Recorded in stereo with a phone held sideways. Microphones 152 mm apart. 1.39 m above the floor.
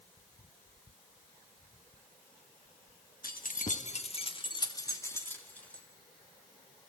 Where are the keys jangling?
70° left (ahead or behind), 1.4 m; by 5.8 s 5° left (ahead or behind), 2.5 m.